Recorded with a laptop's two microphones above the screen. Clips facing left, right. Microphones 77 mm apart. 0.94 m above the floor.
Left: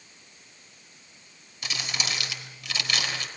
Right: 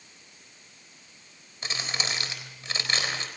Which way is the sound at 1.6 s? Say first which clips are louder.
Even; 35° right (ahead or behind).